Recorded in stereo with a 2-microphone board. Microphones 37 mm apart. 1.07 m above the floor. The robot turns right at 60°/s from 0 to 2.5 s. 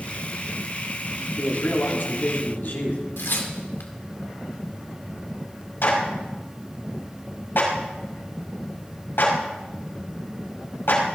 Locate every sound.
1.4 s a man speaking: 50° left, 3 m; by 3.0 s 115° left, 3 m
3.2 s tearing paper: 80° left, 1.9 m
5.8 s a clap: 75° left (ahead or behind), 5 m